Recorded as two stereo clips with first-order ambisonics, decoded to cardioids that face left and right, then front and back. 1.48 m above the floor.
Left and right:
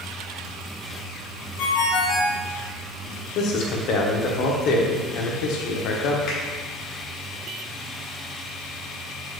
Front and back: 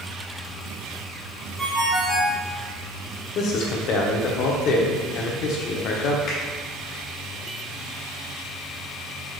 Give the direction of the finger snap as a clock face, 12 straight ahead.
10 o'clock.